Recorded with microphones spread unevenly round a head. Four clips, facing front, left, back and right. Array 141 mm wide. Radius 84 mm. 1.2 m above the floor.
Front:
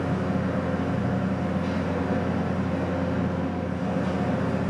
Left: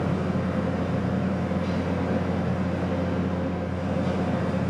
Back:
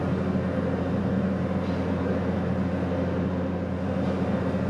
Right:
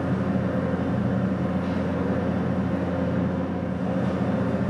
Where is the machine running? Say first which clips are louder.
Right 1 dB, even; 95° right, 0.7 m.